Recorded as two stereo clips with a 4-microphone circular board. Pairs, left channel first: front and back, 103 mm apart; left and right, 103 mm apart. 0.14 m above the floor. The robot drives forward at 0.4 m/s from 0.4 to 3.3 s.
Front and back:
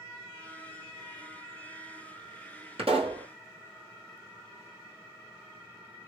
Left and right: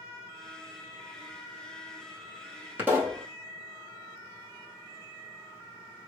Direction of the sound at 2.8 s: 160° right.